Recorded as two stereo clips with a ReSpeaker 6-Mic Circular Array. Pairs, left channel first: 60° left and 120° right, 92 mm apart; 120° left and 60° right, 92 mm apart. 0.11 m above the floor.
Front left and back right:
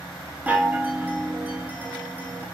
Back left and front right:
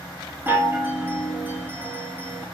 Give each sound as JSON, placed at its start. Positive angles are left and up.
{"t": 0.5, "sound": "a chime", "azimuth_deg": -80, "distance_m": 0.7}